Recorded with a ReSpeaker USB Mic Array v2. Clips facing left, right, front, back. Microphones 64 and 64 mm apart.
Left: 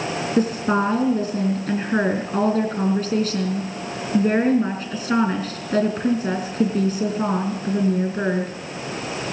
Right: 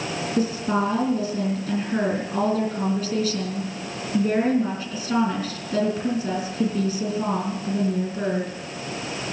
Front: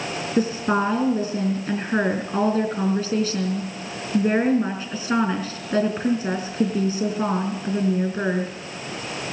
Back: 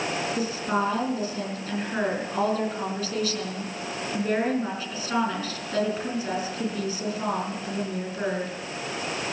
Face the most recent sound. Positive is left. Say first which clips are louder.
# left 3 dB, front 8 dB
turn(degrees=45)